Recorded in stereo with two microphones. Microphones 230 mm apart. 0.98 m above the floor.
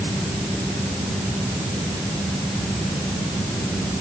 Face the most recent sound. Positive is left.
No sound to turn to.